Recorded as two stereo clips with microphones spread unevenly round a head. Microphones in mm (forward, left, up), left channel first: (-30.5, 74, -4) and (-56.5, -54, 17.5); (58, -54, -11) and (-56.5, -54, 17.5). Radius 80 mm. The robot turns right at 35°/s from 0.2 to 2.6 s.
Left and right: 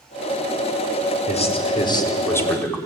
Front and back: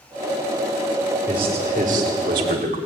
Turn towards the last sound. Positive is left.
turn(degrees=160)